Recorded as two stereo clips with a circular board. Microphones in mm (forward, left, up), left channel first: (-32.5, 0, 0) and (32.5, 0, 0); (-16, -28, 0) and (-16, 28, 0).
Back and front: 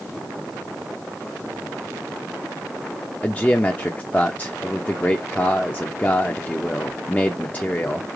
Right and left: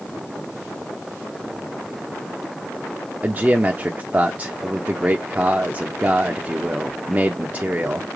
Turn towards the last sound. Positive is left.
turn(degrees=130)